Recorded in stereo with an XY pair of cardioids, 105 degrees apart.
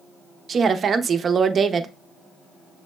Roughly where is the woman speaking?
Ahead right.